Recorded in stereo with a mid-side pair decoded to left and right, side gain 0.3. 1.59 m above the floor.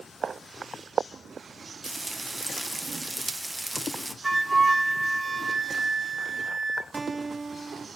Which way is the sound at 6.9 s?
35° right.